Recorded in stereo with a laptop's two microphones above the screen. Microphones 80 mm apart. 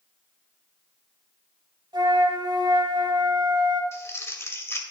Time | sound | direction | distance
1.9 | a flute | 70° right (ahead or behind) | 2 m
3.9 | crumpling | 35° left (ahead or behind) | 1.9 m